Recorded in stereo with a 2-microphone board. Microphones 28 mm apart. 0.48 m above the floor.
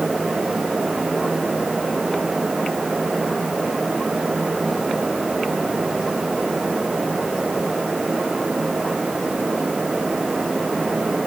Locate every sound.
Only background noise.